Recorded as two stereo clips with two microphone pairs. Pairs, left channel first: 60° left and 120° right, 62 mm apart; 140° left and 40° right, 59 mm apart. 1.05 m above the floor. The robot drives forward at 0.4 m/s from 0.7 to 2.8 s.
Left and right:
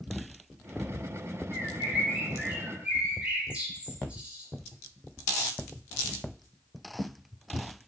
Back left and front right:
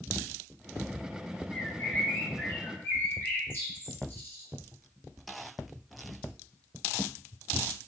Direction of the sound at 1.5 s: 170° left.